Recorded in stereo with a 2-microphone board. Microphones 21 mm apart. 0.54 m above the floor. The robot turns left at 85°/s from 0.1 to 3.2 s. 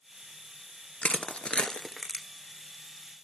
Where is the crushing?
75° left (ahead or behind), 1.4 m; by 2.2 s 5° right (ahead or behind), 1.4 m.